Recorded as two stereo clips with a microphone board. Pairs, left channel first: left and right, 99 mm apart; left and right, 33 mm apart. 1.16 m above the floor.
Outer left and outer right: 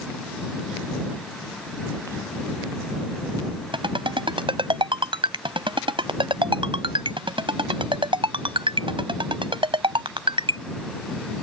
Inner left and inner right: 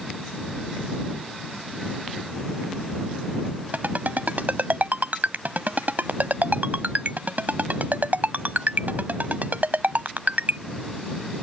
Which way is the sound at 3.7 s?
55° right (ahead or behind).